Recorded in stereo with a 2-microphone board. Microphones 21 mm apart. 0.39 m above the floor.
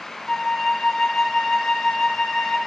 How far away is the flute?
About 1.4 m.